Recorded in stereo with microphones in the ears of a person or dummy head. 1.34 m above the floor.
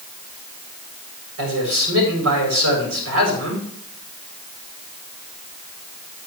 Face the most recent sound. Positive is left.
turn(degrees=-85)